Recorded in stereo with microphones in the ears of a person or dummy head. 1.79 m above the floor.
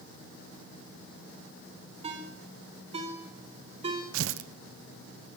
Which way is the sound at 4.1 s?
75° right (ahead or behind).